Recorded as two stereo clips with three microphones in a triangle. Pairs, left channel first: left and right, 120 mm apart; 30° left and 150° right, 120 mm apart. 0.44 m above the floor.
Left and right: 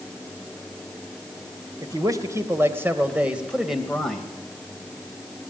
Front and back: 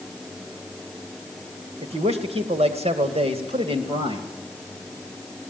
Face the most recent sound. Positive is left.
turn(degrees=175)